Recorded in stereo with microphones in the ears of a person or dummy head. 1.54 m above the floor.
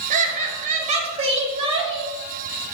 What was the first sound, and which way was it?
Laughter, 45° right (ahead or behind).